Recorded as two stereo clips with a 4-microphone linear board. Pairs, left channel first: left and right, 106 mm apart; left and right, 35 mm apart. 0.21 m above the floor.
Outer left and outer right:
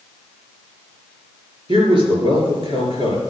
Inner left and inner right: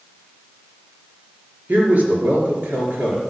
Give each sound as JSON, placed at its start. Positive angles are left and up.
{"t": 1.7, "sound": "a man speaking", "side_deg": -55, "distance_m": 4.5}